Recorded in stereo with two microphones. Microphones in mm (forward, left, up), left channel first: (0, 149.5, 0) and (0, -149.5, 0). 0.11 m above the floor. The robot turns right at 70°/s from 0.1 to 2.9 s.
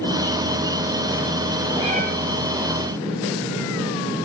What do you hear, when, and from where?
1.8 s a cat meowing: 10° right (ahead or behind), 1.5 m; by 2.0 s 30° right (ahead or behind), 1.5 m